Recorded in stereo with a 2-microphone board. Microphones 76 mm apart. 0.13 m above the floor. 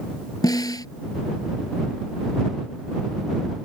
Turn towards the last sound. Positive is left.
turn(degrees=60)  # may be behind; listen again after turning